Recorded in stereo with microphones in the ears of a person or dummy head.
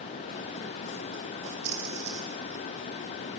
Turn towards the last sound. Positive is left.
turn(degrees=-65)  # may be behind; listen again after turning